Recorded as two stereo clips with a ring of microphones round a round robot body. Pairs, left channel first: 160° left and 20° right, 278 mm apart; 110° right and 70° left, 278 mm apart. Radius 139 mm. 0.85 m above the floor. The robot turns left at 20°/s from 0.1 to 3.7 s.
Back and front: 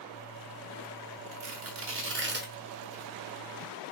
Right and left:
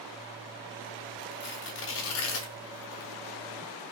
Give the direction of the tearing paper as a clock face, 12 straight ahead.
2 o'clock.